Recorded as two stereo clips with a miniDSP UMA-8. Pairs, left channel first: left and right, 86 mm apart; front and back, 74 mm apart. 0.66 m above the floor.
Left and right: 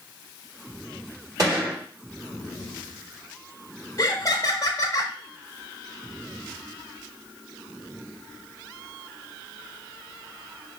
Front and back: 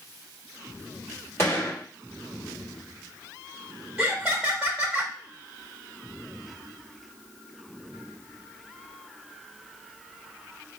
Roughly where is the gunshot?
Ahead right.